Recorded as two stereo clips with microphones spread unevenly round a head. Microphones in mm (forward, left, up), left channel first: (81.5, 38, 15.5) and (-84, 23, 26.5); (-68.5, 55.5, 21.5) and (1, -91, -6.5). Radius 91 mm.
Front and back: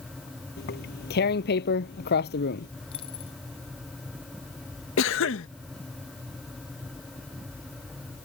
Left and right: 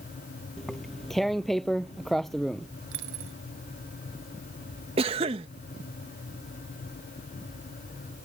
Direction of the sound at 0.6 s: 30° left.